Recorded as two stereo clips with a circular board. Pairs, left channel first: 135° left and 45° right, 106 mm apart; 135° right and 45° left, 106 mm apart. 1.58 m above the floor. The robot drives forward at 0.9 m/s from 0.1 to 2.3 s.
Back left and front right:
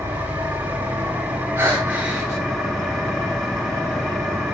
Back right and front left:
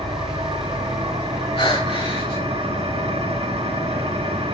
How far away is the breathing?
About 3 m.